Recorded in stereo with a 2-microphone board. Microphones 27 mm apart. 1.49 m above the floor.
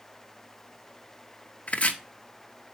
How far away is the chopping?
About 0.8 m.